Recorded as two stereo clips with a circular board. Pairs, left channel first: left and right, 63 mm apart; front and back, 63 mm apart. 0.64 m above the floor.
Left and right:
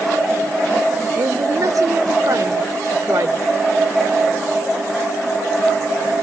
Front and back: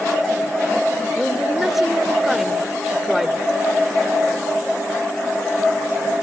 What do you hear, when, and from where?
1.1 s a woman speaking: 95° right, 1.8 m